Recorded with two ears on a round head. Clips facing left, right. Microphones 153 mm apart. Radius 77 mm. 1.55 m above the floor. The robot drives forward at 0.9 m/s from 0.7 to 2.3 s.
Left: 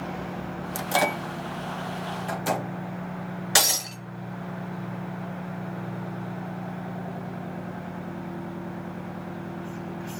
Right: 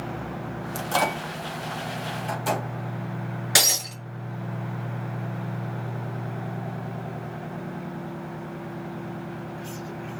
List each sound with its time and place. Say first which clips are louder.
0.8 s a microwave: even; 15° left (ahead or behind), 0.7 m; by 2.7 s 5° left (ahead or behind), 2 m
3.5 s breaking glass: left 2 dB; 10° right (ahead or behind), 4.5 m